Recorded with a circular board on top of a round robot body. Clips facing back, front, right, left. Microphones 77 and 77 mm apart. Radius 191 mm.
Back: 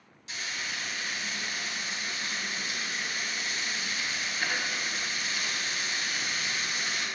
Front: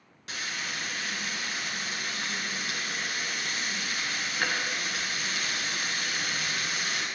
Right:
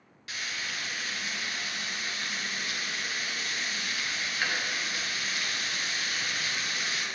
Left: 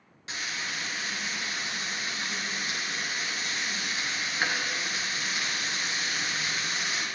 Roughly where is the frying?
Ahead left.